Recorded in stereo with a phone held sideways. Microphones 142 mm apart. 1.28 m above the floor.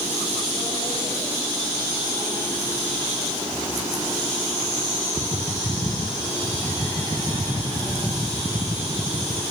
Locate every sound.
Only background noise.